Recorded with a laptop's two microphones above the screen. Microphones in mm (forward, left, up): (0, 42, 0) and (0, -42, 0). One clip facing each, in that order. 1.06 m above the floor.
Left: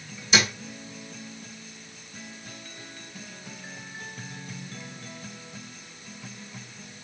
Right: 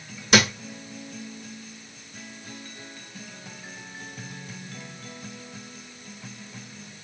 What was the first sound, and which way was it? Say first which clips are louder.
A thud: right 5 dB; 65° right (ahead or behind).